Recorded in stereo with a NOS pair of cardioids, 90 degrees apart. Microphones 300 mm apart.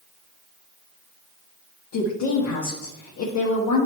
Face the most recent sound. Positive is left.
turn(degrees=70)